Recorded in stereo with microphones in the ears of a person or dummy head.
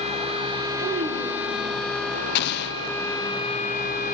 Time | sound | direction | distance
0.8 | a child speaking | 30° right (ahead or behind) | 0.9 m
2.4 | an explosion | 65° left (ahead or behind) | 0.7 m